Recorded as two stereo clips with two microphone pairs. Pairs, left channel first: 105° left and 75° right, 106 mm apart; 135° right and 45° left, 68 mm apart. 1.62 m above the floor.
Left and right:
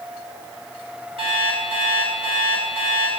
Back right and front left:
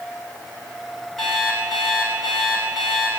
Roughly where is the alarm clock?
Ahead right.